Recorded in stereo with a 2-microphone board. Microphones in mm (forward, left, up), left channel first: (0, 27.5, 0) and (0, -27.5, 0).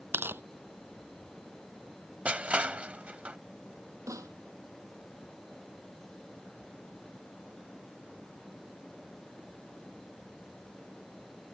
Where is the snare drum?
80° right.